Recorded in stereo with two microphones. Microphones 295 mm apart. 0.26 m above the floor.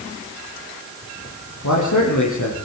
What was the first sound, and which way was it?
A man speaking, 80° left.